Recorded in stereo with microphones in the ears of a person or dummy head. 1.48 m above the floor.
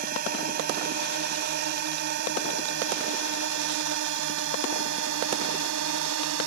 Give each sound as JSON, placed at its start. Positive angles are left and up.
{"t": 0.0, "sound": "a drone", "side_deg": -50}